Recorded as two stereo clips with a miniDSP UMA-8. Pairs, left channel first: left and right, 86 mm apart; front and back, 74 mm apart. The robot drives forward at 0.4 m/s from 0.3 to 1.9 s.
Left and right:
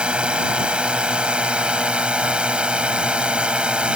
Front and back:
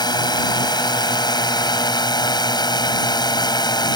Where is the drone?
10° right; by 4.0 s 15° right.